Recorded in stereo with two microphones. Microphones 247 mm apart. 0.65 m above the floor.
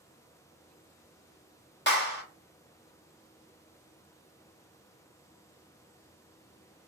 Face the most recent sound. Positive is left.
turn(degrees=45)  # may be behind; listen again after turning